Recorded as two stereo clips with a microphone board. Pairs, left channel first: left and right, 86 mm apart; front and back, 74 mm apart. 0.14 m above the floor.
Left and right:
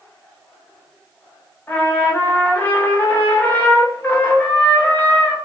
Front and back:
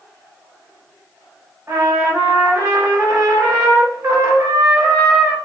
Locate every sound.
1.7 s a trumpet: 150° left, 1.3 m